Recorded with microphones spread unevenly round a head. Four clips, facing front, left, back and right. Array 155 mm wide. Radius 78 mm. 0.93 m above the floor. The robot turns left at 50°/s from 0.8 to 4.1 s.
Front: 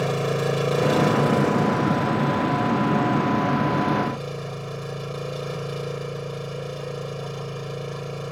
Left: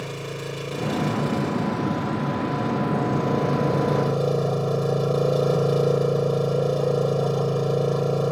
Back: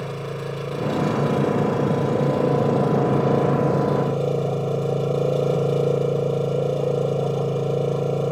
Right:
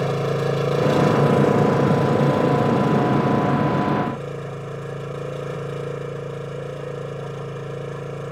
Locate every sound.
0.0 s an engine running: 50° right; by 8.3 s 145° left